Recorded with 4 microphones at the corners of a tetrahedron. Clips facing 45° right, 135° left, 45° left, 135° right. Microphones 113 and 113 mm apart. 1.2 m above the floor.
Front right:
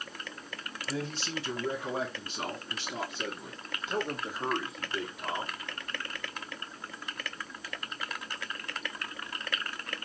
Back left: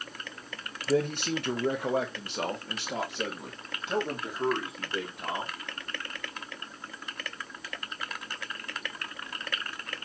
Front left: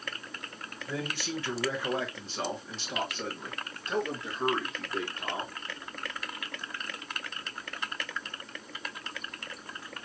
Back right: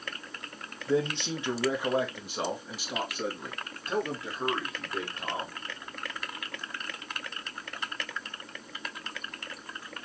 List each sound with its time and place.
0.9 s a man speaking: 165° left, 0.8 m; by 5.5 s 140° left, 3 m